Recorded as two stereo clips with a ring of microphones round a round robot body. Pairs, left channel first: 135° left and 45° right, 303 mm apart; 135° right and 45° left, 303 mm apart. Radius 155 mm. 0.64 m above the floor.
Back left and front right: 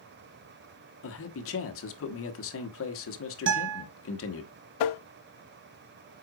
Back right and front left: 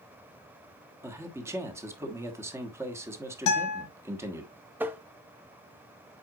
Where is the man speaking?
125° left, 1.2 m.